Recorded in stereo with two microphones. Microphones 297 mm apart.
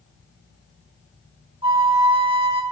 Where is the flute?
20° right (ahead or behind), 0.8 m.